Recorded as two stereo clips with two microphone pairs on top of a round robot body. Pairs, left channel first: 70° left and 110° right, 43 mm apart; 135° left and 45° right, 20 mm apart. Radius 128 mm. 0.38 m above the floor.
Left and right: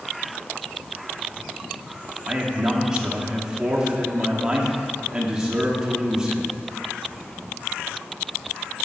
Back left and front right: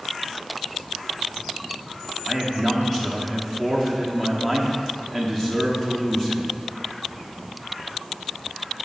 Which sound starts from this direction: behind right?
A man speaking, at 2.3 s.